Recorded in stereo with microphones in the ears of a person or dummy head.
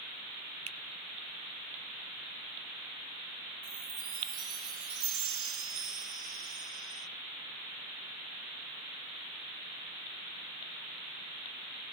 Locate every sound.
0.7 s a finger snap: 35° right (ahead or behind), 0.6 m
3.6 s a chime: 70° right (ahead or behind), 1.6 m